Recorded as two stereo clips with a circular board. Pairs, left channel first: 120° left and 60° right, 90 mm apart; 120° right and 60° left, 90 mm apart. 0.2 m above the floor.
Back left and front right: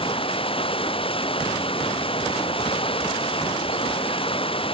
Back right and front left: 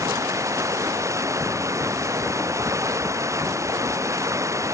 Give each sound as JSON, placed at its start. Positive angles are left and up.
{"t": 0.0, "sound": "running water", "azimuth_deg": 115}